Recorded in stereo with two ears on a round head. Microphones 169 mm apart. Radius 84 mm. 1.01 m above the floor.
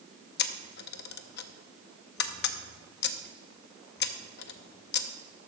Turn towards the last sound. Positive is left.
turn(degrees=55)  # may be behind; listen again after turning